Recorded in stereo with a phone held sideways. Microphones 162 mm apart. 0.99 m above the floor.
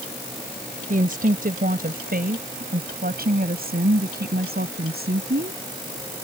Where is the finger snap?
I don't hear a finger snap.